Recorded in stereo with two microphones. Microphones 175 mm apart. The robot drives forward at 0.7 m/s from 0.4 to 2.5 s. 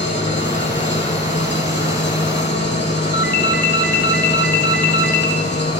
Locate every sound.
0.0 s an engine running: 80° left, 5.5 m; by 5.8 s 75° left (ahead or behind), 6 m
3.1 s a ringtone: 65° left (ahead or behind), 1.7 m